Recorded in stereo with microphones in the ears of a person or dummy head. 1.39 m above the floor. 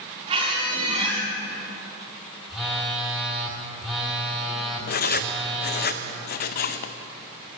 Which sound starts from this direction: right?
A squeak, at 0.3 s.